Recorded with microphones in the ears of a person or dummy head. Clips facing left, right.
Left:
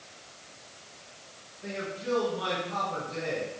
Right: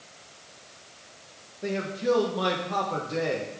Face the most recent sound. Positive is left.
turn(degrees=-65)  # may be behind; listen again after turning